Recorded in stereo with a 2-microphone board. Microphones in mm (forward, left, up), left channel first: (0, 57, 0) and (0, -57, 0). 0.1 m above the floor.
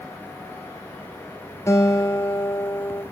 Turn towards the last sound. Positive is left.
turn(degrees=25)  # may be behind; listen again after turning